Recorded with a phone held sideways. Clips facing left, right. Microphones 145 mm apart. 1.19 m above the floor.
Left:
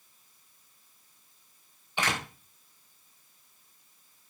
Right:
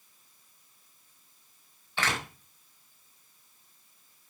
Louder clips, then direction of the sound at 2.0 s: Left 1 dB; 15° left (ahead or behind).